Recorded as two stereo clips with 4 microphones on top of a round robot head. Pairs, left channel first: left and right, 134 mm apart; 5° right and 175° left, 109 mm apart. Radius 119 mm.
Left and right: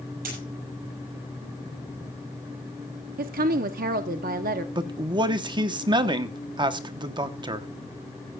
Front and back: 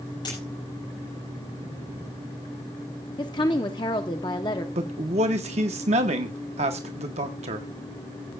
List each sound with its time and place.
0.2 s a dropped coin: 65° right, 7.5 m
3.2 s a woman speaking: 65° right, 0.8 m
4.8 s a man speaking: 145° right, 1.1 m